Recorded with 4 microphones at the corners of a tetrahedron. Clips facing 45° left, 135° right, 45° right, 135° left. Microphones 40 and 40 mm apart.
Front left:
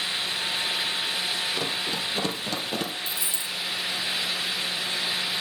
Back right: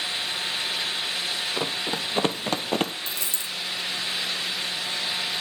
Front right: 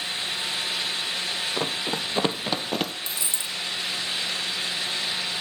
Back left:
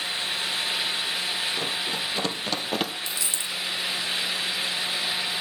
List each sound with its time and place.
1.6 s running footsteps: 80° right, 2 m; by 2.9 s 150° right, 1.3 m
3.1 s a dropped coin: 110° right, 2.5 m